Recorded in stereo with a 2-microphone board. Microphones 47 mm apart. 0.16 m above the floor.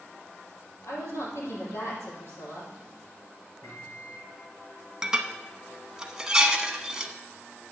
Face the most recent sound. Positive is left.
turn(degrees=-15)  # may be behind; listen again after turning